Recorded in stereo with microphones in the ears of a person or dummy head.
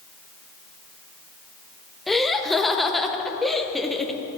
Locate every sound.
2.1 s laughter: 10° left (ahead or behind), 0.7 m